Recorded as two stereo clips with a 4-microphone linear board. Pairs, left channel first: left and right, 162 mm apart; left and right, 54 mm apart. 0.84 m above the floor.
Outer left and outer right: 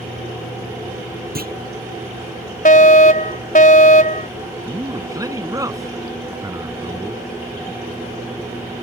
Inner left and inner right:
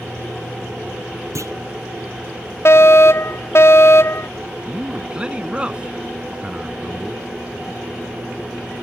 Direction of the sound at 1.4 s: 70° right (ahead or behind).